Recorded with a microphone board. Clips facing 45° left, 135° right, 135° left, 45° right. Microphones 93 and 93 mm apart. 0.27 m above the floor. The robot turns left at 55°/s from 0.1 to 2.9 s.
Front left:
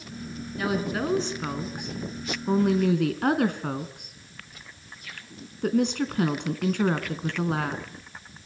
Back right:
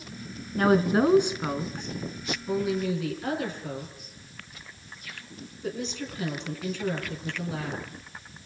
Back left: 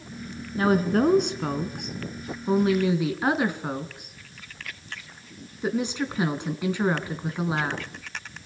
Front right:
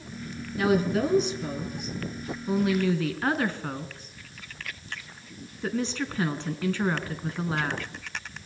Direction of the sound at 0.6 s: 170° right.